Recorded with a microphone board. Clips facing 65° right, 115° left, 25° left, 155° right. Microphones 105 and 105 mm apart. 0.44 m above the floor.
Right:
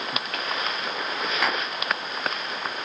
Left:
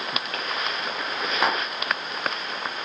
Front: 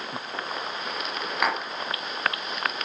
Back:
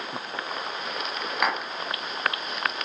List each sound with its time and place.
1.4 s tapping: 110° left, 0.6 m